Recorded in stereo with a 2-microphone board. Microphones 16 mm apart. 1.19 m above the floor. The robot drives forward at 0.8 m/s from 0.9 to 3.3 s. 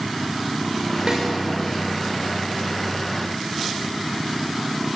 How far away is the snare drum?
About 5 m.